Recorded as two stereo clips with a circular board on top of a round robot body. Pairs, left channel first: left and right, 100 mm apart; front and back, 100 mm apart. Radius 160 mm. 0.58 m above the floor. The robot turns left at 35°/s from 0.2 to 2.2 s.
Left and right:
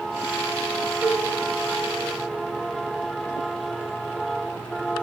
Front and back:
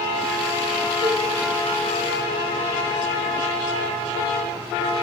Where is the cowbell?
160° right, 3 m; by 1.3 s 170° right, 3 m.